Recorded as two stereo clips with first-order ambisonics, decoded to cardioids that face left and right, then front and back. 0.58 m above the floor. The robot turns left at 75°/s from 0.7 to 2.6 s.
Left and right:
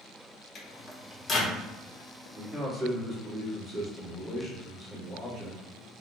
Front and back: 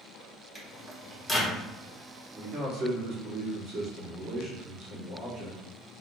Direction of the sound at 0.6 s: 95° left.